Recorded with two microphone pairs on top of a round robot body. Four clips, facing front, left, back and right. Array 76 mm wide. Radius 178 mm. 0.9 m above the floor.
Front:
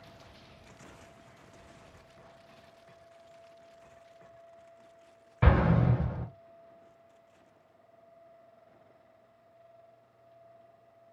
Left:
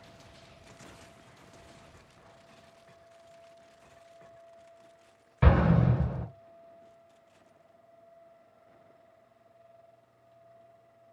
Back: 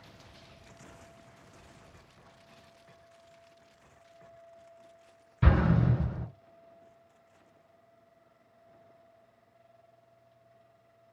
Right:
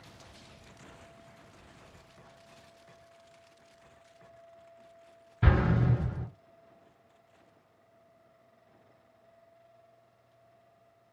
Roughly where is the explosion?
Ahead left.